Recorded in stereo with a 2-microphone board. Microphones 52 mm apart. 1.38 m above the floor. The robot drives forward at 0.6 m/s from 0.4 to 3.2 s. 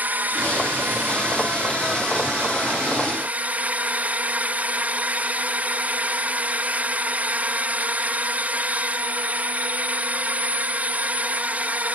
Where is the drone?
35° right (ahead or behind); by 11.9 s 30° right (ahead or behind).